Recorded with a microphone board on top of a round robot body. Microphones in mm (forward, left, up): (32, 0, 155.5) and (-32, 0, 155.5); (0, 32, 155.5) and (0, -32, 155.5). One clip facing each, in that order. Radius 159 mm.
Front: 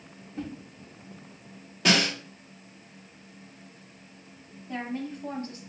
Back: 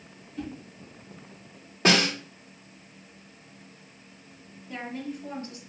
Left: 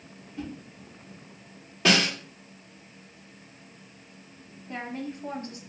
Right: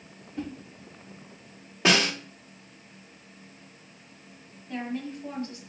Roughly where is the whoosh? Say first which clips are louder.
Even, right 2 dB; ahead right.